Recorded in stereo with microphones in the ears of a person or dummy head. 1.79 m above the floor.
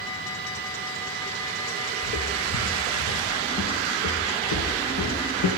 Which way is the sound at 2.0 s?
50° left (ahead or behind).